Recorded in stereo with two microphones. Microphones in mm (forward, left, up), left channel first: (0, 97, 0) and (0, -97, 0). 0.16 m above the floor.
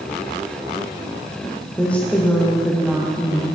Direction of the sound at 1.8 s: 5° left (ahead or behind).